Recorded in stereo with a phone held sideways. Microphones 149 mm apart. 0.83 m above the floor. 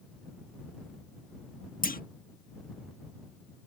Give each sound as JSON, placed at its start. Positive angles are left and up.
{"t": 1.8, "sound": "a clunk", "side_deg": 70}